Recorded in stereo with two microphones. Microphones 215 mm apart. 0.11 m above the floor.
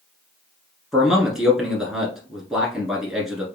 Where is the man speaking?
Centre (ahead or behind), 1.5 m.